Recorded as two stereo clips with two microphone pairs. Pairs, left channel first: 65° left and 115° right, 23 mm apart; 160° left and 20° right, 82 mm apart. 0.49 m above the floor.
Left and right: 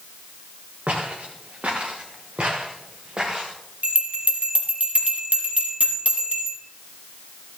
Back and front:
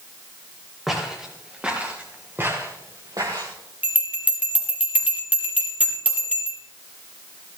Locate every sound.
0.9 s footsteps: 110° right, 4.5 m; by 3.5 s 50° right, 3 m
3.8 s a bell: 90° right, 2.5 m